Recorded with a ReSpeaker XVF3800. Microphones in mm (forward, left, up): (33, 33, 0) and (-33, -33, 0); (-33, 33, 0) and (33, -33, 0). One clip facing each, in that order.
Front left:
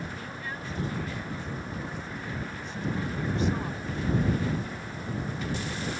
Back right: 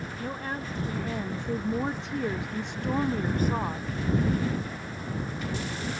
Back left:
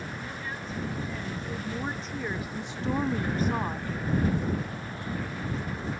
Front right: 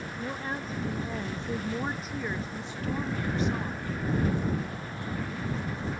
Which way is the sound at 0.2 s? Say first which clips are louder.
Back right 4 dB, front right 3 dB; 85° right.